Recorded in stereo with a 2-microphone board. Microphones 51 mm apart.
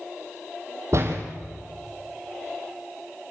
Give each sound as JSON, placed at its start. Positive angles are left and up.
{"t": 0.9, "sound": "a door slam", "side_deg": -60, "distance_m": 3.0}